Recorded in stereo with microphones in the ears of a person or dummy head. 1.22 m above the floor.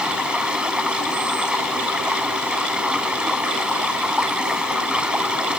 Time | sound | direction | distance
0.0 | running water | 5° right (ahead or behind) | ?